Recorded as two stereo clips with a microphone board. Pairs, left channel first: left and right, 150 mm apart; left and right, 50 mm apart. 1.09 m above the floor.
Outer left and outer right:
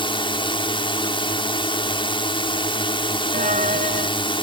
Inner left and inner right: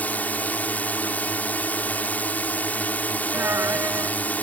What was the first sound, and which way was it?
A drone, 35° left (ahead or behind).